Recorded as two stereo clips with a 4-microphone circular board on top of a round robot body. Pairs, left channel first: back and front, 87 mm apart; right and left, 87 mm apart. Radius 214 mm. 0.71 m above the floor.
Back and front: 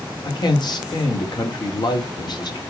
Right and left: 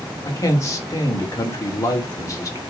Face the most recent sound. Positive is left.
turn(degrees=-145)